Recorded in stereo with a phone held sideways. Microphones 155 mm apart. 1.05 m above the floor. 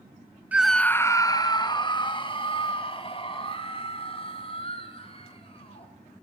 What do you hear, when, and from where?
0.5 s a scream: 10° right (ahead or behind), 0.6 m; by 5.9 s 40° left (ahead or behind), 5.5 m